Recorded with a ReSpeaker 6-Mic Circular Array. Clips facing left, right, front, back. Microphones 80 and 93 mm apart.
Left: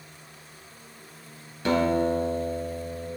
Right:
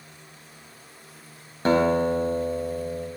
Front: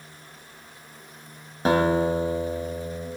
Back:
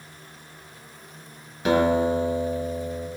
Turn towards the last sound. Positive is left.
turn(degrees=-45)